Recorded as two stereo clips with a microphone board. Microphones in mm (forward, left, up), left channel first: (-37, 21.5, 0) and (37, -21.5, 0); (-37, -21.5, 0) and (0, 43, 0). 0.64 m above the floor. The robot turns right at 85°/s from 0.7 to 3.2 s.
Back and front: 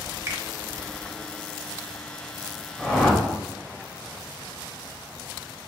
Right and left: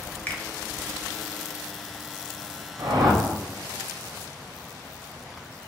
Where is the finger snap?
65° right, 0.6 m.